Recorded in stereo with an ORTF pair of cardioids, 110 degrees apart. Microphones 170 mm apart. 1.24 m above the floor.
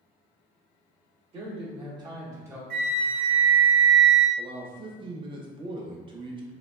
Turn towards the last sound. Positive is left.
turn(degrees=-30)